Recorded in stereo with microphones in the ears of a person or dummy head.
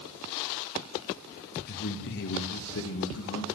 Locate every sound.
1.7 s a man speaking: 50° left (ahead or behind), 1.6 m; by 3.5 s 75° left (ahead or behind), 2.5 m